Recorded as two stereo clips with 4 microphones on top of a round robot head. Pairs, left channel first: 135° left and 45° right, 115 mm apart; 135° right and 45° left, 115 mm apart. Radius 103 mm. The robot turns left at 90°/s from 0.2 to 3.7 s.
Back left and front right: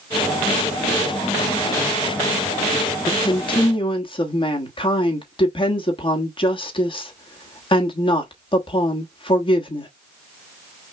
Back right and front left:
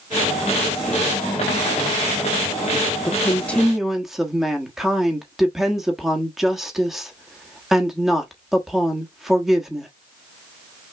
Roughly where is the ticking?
I don't hear ticking.